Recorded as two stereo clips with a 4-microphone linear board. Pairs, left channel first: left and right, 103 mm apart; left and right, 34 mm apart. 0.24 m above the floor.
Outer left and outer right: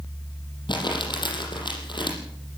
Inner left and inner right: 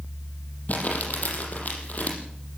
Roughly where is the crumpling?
Left.